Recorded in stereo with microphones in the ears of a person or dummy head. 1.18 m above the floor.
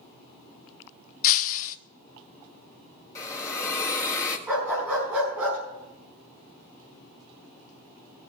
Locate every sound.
1.2 s breaking glass: 50° left (ahead or behind), 0.6 m
3.1 s a hiss: 15° left (ahead or behind), 1.5 m
4.5 s a dog barking: 10° right (ahead or behind), 5 m